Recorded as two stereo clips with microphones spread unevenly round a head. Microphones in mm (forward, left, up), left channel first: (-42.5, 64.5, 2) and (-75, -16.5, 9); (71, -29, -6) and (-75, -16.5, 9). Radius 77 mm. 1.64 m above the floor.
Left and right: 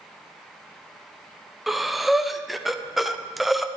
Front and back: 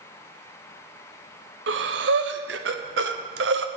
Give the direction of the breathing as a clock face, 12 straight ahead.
7 o'clock.